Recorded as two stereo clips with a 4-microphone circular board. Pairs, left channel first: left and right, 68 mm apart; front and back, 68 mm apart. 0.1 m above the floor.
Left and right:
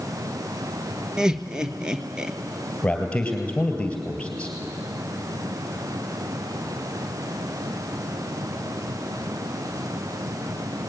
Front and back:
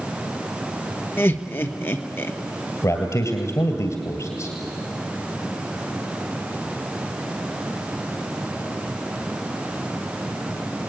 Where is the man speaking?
20° left, 2.5 m.